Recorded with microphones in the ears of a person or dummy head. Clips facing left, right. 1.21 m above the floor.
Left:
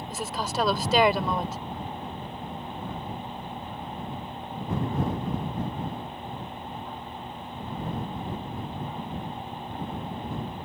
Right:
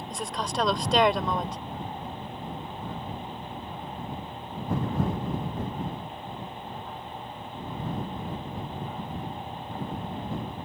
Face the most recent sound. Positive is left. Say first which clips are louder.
# left 1 dB
turn(degrees=5)  # may be behind; listen again after turning